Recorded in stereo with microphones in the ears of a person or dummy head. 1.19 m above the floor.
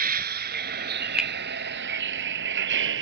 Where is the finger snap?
10° right (ahead or behind).